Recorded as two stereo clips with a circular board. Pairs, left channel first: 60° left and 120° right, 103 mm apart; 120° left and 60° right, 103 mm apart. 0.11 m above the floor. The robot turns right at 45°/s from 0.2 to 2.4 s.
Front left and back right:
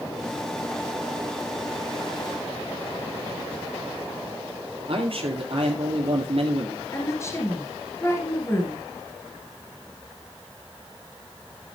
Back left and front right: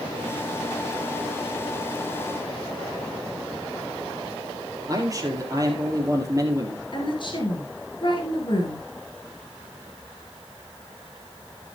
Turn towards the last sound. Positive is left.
turn(degrees=115)